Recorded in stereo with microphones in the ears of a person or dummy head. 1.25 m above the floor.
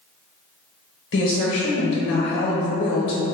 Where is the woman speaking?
65° left (ahead or behind), 0.9 m.